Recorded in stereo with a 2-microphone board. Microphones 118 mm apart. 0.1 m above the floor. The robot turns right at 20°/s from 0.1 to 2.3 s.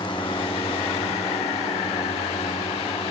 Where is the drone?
45° left (ahead or behind); by 3.1 s 75° left (ahead or behind).